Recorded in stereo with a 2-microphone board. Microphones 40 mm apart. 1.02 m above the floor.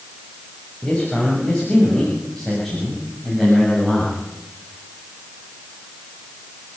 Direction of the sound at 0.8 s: 20° left (ahead or behind).